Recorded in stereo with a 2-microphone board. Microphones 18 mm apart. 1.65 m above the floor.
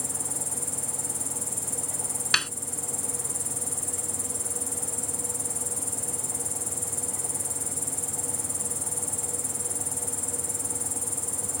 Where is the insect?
5° right (ahead or behind).